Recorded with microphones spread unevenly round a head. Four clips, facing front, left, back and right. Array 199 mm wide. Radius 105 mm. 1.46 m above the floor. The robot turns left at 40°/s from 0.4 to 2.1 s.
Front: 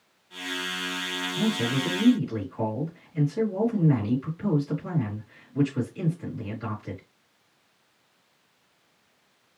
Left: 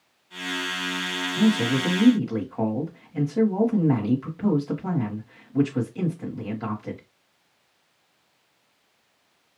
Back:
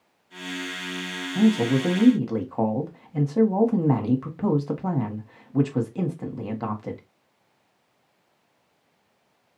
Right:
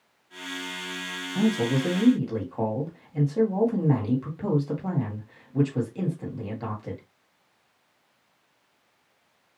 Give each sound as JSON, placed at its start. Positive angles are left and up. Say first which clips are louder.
{"t": 1.4, "sound": "a man speaking", "louder": "left 2 dB, back 7 dB", "azimuth_deg": -150, "distance_m": 1.2}